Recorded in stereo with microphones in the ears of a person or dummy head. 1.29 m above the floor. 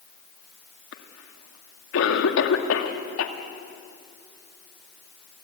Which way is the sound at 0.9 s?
70° left (ahead or behind).